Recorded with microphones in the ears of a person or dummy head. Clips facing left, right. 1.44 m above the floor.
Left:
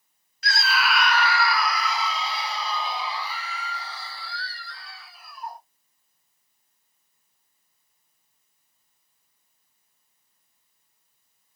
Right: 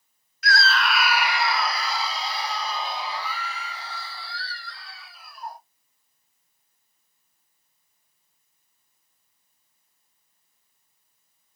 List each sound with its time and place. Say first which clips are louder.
0.4 s a scream: right 2 dB; 25° left (ahead or behind), 0.6 m; by 5.6 s 55° right (ahead or behind), 3 m